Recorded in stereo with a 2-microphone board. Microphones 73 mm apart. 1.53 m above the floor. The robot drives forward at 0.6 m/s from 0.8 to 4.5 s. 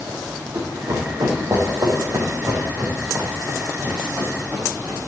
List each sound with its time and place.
0.5 s running footsteps: 70° right (ahead or behind), 4 m; by 5.0 s 25° right (ahead or behind), 6 m